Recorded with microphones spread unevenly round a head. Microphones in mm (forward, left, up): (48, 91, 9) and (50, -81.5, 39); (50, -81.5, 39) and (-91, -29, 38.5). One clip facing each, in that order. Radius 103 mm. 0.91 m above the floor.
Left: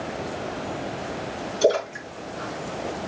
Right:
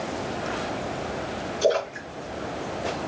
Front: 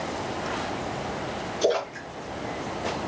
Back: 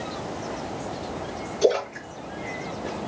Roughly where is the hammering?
No hammering in this recording.